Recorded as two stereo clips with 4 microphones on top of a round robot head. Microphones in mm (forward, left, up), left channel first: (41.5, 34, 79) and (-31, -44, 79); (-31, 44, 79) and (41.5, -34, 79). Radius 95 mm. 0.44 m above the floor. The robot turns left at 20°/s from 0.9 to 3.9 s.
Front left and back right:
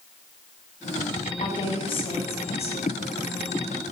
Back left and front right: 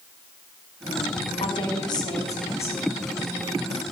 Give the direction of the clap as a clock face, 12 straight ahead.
No clap in this recording.